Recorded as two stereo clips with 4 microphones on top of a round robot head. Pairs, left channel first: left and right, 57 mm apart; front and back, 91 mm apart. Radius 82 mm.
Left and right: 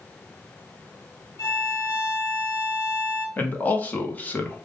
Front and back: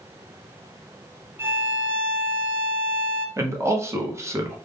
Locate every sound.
1.4 s a violin: 115° left, 0.7 m
3.4 s a man speaking: 140° left, 1.0 m